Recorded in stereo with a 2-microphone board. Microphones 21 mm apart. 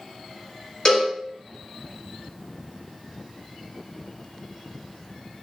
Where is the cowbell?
35° left (ahead or behind), 1.5 m.